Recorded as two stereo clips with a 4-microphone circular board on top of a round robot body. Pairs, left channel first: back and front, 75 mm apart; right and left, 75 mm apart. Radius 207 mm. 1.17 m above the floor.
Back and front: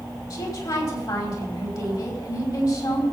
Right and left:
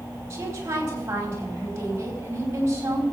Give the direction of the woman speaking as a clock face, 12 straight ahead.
7 o'clock.